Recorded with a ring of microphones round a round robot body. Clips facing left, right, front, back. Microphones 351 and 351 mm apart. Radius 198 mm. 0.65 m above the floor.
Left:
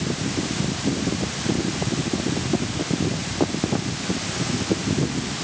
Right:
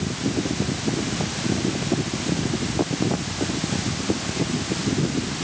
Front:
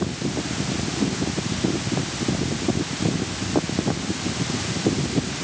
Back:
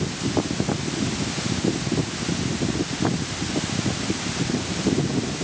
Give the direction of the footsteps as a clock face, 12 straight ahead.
I don't hear footsteps.